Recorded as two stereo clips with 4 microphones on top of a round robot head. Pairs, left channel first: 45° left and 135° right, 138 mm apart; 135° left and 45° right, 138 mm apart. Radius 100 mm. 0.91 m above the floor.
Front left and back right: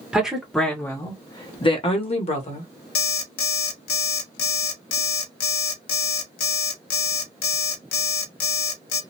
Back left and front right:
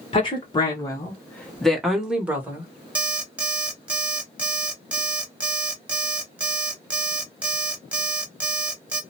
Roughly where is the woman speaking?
Behind left.